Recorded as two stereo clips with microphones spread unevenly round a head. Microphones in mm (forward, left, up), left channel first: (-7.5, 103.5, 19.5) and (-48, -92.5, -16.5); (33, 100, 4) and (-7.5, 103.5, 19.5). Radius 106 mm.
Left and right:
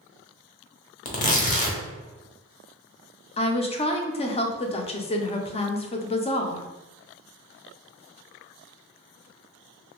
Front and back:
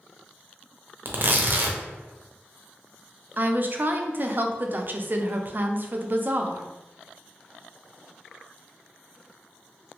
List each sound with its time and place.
1.1 s tearing paper: 130° left, 0.8 m
3.4 s a woman speaking: 140° left, 0.6 m